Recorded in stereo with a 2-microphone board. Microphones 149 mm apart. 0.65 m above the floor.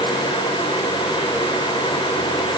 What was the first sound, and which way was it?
Only background noise.